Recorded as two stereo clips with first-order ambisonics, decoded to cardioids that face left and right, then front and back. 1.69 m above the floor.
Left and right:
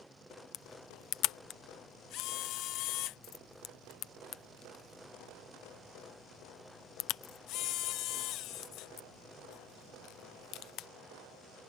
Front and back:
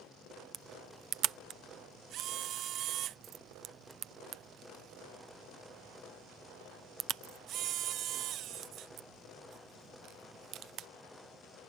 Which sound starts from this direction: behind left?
A camera shutter, at 0.5 s.